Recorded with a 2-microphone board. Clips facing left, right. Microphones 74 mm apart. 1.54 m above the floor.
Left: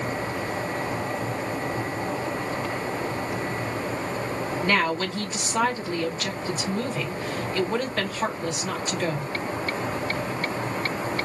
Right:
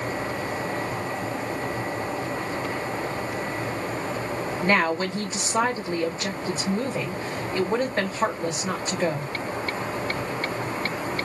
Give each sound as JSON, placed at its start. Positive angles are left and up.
{"t": 4.6, "sound": "a woman speaking", "side_deg": -25, "distance_m": 1.9}